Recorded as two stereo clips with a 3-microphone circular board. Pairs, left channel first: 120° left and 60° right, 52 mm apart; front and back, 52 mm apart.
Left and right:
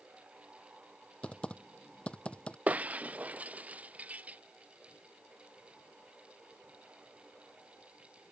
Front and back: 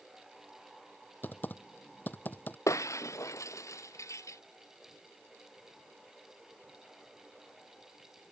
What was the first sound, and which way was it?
Typing on a keyboard, 50° left.